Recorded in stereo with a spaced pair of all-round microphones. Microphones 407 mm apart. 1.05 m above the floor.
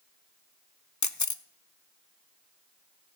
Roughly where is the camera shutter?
Left.